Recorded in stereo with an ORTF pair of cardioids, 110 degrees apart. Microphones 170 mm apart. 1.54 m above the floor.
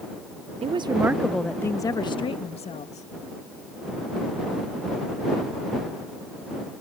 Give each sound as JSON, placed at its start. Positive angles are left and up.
{"t": 0.6, "sound": "a woman speaking", "azimuth_deg": -40}